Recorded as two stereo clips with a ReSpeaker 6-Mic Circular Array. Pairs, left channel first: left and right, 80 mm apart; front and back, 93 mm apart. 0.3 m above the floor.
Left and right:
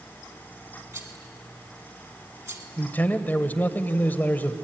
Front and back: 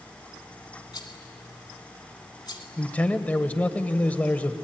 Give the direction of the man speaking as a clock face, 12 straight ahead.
10 o'clock.